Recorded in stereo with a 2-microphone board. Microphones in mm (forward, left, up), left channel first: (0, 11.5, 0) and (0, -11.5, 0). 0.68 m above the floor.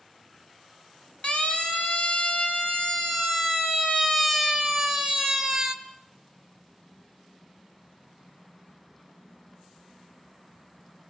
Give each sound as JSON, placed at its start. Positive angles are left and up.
{"t": 1.2, "sound": "a siren", "side_deg": 55, "distance_m": 3.0}